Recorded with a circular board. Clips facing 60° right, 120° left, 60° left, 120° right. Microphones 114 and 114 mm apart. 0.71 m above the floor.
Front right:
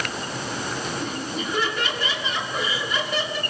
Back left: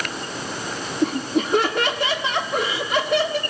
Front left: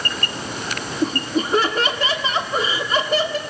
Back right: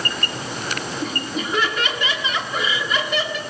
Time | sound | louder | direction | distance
1.0 | laughter | back left 8 dB, front left 9 dB | 110° left | 1.6 m